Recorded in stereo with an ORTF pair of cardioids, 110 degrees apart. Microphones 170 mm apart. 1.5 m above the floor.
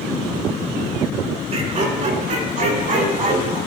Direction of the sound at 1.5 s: 40° right.